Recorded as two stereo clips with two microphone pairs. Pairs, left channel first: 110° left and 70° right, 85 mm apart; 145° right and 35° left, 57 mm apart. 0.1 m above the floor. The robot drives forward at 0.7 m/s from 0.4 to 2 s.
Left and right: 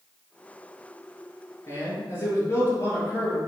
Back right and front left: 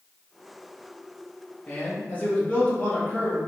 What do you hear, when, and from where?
1.7 s a man speaking: 155° left, 1.9 m